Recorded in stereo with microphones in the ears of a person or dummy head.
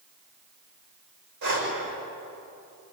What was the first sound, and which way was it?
Breathing, 60° right (ahead or behind).